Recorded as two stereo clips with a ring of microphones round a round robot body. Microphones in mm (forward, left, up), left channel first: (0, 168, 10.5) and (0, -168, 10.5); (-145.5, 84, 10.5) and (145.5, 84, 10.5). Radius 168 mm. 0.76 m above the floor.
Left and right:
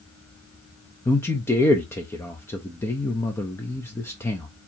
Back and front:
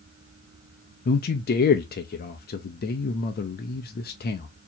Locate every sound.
1.1 s a man speaking: 165° left, 0.5 m